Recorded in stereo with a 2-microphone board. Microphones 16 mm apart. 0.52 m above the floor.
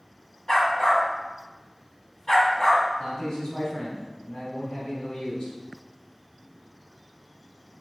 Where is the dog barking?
40° left (ahead or behind), 1.7 m.